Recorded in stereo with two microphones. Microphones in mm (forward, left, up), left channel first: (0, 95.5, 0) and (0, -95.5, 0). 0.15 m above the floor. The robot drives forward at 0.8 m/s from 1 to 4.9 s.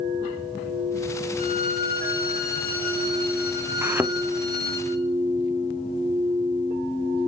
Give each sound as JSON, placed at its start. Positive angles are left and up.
{"t": 1.4, "sound": "a violin", "side_deg": 45, "distance_m": 6.5}
{"t": 3.8, "sound": "a thud", "side_deg": -15, "distance_m": 0.6}